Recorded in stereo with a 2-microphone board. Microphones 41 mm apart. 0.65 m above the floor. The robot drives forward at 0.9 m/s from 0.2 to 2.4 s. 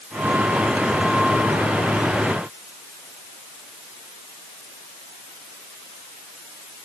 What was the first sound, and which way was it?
Only background noise.